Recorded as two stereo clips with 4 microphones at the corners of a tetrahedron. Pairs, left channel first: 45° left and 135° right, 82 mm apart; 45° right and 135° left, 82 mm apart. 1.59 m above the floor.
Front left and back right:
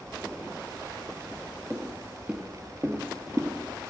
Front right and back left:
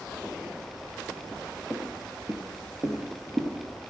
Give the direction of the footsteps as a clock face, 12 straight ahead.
7 o'clock.